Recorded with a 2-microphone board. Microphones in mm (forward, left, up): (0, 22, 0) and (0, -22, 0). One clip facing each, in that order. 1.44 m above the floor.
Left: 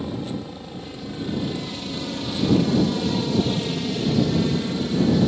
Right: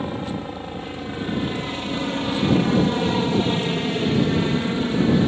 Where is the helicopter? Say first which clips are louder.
Right 2 dB; 35° right (ahead or behind); by 5.3 s 30° right (ahead or behind).